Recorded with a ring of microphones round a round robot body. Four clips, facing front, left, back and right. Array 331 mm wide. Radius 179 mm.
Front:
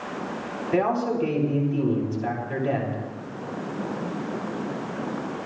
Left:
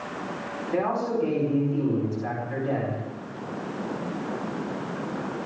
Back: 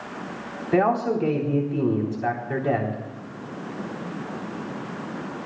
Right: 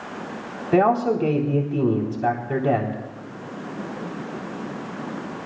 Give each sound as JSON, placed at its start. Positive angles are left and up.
{"t": 0.7, "sound": "a man speaking", "azimuth_deg": -110, "distance_m": 4.0}